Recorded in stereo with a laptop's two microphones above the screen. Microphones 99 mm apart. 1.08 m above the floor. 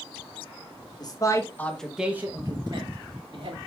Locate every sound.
1.0 s a man speaking: 40° left (ahead or behind), 1.2 m; by 3.6 s 65° right (ahead or behind), 1.7 m